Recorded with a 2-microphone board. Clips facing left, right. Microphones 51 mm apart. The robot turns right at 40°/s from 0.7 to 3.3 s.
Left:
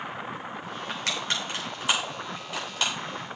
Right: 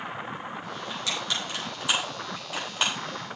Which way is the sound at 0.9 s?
60° left (ahead or behind).